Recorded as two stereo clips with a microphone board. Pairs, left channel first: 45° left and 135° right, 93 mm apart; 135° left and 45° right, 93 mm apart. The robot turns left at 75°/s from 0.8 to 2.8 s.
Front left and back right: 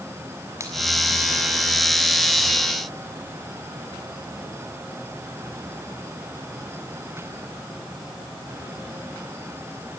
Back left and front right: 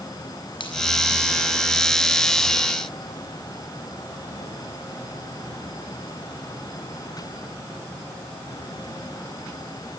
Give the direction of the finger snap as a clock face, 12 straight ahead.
6 o'clock.